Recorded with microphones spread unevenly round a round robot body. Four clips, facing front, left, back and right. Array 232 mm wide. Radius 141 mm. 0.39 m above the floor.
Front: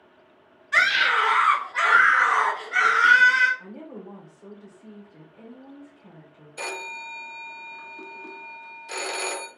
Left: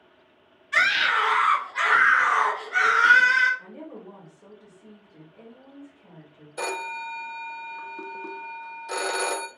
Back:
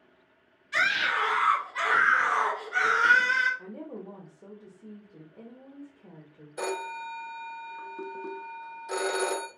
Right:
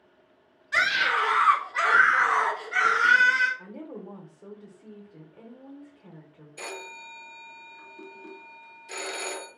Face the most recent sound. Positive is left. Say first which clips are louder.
# left 9 dB, back 3 dB
turn(degrees=100)